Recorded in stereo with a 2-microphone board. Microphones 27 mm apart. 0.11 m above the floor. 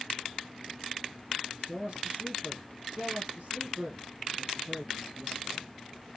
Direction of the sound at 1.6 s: 40° right (ahead or behind).